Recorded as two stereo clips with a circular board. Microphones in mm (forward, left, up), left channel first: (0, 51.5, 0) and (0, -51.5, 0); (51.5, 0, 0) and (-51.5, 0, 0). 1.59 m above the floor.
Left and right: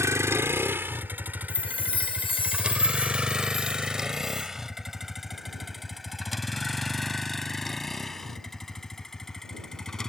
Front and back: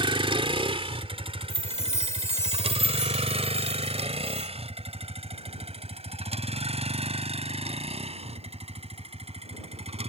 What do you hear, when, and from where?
0.0 s a vehicle: 150° right; by 10.1 s 175° left
1.5 s a chime: 60° left